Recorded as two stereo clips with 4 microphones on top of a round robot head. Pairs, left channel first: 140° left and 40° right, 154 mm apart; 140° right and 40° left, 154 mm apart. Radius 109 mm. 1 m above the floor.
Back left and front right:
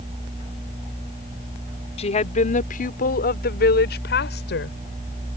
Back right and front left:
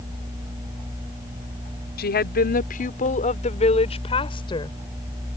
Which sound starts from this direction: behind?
A woman speaking, at 2.0 s.